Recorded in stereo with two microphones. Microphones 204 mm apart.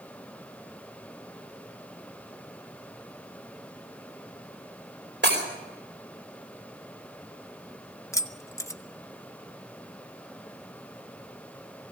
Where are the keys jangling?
15° left (ahead or behind), 0.9 m.